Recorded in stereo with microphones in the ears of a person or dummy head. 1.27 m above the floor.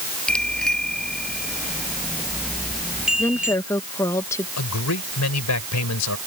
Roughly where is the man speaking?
Left.